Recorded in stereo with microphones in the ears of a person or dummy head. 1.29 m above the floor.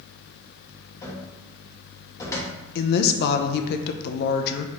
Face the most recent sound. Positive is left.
turn(degrees=60)  # may be behind; listen again after turning